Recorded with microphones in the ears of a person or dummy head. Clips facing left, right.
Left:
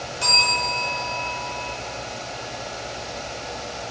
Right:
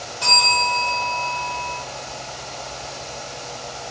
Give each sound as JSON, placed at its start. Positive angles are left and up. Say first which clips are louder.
{"t": 0.2, "sound": "a bell", "louder": "right 5 dB", "side_deg": 35, "distance_m": 0.9}